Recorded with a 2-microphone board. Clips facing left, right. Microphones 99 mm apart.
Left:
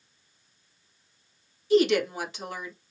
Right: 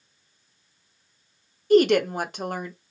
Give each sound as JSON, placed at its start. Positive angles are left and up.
{"t": 1.7, "sound": "a woman speaking", "side_deg": -55, "distance_m": 0.9}